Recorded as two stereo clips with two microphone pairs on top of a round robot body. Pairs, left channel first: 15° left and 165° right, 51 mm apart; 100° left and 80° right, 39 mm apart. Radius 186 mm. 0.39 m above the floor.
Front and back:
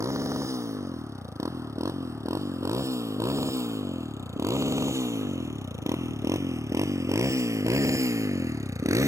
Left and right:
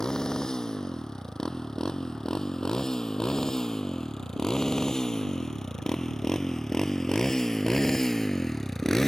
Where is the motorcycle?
170° left; by 9.1 s straight behind.